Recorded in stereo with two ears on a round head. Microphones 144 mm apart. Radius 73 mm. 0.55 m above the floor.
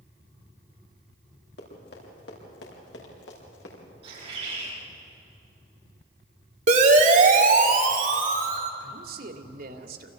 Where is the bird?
40° right (ahead or behind), 9 m.